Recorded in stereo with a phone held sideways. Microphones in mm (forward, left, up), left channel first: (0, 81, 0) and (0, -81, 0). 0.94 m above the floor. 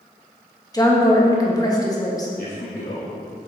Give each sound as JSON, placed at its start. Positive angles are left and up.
{"t": 0.7, "sound": "a woman speaking", "side_deg": 20, "distance_m": 1.4}
{"t": 2.4, "sound": "a man speaking", "side_deg": 75, "distance_m": 1.6}